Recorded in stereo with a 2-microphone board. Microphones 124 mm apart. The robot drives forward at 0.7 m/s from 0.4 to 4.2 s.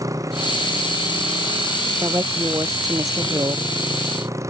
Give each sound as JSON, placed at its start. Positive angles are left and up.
{"t": 0.0, "sound": "a motorcycle", "side_deg": -25}
{"t": 2.0, "sound": "a woman speaking", "side_deg": -20}